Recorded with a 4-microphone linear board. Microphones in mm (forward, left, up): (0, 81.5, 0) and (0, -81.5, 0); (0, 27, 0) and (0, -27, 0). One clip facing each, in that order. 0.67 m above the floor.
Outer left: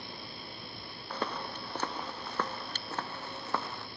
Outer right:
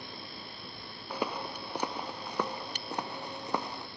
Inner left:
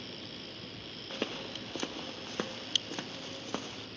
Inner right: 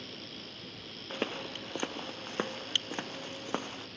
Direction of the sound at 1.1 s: 10° right (ahead or behind).